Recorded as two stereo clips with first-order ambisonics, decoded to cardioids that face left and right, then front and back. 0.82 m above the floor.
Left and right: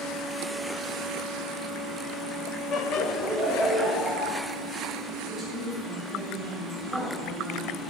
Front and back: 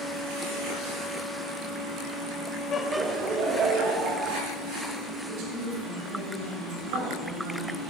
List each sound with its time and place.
2.7 s laughter: 45° left, 0.6 m; by 4.4 s 160° left, 2.5 m
5.3 s a woman speaking: 175° right, 3.5 m